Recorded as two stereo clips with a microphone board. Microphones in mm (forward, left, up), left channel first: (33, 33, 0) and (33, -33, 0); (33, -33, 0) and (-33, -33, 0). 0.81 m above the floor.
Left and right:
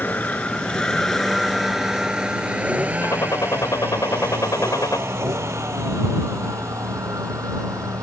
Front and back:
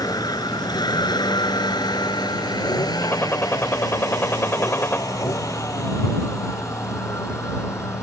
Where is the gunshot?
55° left.